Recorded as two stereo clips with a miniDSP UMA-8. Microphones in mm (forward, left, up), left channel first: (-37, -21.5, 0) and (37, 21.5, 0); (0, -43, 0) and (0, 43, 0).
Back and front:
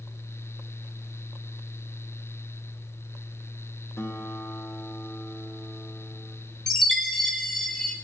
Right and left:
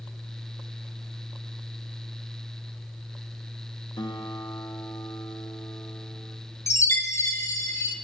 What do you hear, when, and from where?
4.0 s a guitar: 100° right, 0.9 m
6.7 s a chime: 70° right, 0.8 m